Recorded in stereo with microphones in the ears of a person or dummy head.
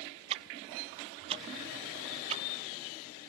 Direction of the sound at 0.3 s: 30° right (ahead or behind).